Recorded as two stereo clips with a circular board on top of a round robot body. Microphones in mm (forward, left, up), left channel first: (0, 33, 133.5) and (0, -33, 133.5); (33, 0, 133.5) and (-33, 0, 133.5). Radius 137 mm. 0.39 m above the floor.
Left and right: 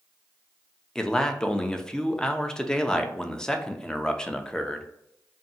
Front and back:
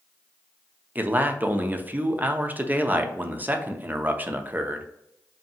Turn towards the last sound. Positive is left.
turn(degrees=155)